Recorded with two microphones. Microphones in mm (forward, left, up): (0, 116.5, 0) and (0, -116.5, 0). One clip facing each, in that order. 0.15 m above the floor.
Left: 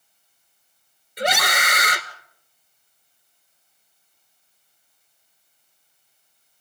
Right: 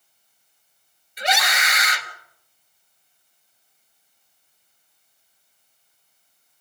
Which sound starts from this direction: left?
A scream, at 1.2 s.